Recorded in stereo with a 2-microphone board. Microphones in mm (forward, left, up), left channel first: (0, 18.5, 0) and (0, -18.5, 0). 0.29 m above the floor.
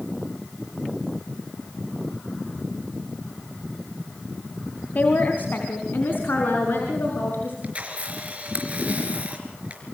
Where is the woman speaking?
55° left (ahead or behind), 2.5 m; by 7.5 s 75° left (ahead or behind), 5.5 m.